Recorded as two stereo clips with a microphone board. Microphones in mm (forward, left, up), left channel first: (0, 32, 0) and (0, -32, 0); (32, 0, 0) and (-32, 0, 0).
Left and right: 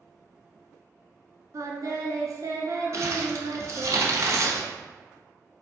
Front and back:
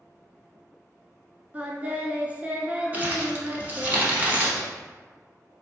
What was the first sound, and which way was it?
Singing, 115° right.